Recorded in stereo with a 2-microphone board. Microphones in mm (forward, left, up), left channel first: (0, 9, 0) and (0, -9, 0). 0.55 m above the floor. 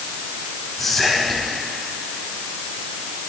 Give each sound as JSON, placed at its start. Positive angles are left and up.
{"t": 0.8, "sound": "whispering", "side_deg": 5, "distance_m": 4.0}